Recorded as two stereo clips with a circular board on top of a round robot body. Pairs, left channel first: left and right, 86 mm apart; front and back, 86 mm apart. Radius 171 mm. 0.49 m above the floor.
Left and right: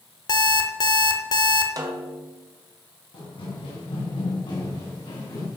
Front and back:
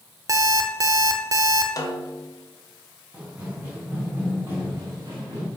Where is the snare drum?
45° right, 1.5 m.